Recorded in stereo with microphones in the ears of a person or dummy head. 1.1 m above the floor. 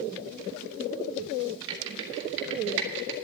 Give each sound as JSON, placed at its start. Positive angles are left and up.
{"t": 1.7, "sound": "typing on a keyboard", "side_deg": -65, "distance_m": 1.8}